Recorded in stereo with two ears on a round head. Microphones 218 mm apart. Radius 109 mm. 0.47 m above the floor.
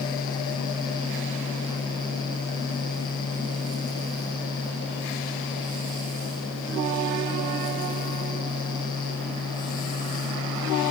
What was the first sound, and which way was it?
Only background noise.